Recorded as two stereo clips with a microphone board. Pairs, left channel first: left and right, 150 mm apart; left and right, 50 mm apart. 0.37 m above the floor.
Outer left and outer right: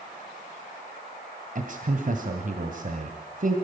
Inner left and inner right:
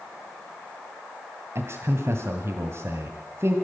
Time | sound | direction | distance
1.6 | a man speaking | 65° right (ahead or behind) | 2 m